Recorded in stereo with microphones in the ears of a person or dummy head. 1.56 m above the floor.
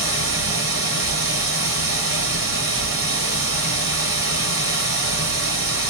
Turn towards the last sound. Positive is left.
turn(degrees=-65)  # may be behind; listen again after turning